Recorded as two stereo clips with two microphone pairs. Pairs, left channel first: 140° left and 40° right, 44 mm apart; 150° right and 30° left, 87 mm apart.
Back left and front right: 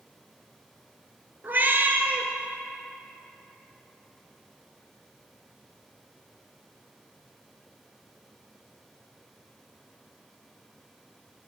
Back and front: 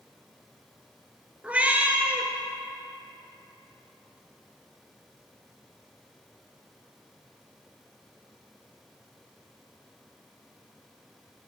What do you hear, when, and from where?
1.4 s a cat meowing: 35° right, 0.5 m